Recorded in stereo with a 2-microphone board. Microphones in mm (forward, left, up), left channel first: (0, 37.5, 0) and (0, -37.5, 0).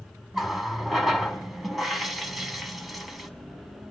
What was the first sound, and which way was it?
A running tap, centre (ahead or behind).